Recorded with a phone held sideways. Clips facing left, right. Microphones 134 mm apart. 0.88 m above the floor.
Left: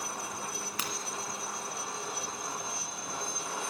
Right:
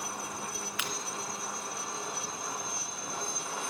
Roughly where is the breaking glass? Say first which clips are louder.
Even; left.